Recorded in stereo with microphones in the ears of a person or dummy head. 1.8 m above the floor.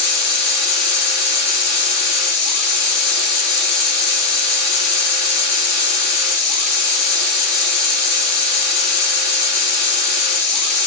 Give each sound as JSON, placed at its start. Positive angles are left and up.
{"t": 0.0, "sound": "a machine running", "side_deg": 60, "distance_m": 1.1}